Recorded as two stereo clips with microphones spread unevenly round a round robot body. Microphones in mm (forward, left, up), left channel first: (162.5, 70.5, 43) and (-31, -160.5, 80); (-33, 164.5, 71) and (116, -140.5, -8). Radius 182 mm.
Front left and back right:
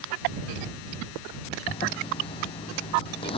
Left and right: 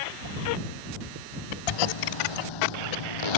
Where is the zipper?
125° left.